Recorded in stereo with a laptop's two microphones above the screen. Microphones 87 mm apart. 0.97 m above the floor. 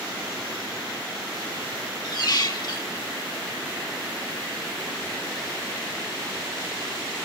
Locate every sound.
2.0 s a squeak: 55° left (ahead or behind), 1.0 m